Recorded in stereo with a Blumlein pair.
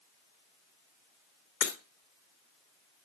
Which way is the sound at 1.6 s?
55° left.